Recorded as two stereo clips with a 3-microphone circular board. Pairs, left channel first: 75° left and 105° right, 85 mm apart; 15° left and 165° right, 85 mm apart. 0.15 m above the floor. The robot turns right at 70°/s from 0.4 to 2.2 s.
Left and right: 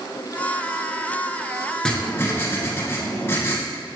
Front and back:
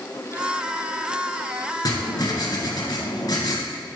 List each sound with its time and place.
1.9 s writing: 5° right, 1.2 m; by 3.6 s 20° left, 1.2 m